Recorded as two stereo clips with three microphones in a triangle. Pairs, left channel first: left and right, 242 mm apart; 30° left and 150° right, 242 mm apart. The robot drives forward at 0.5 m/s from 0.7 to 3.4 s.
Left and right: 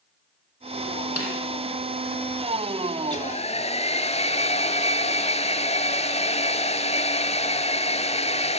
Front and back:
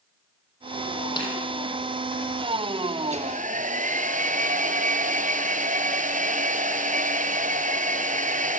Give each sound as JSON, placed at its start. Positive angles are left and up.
{"t": 1.2, "sound": "a snare drum", "azimuth_deg": 100, "distance_m": 5.5}
{"t": 3.0, "sound": "a hair dryer", "azimuth_deg": 150, "distance_m": 1.0}